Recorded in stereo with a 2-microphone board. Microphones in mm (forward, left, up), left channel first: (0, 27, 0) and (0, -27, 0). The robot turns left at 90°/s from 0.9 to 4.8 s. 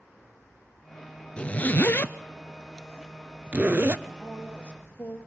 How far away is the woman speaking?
About 2.5 m.